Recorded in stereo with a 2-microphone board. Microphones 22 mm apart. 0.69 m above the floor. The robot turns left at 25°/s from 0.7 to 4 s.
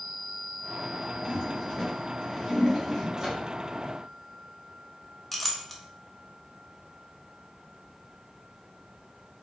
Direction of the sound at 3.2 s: 30° right (ahead or behind).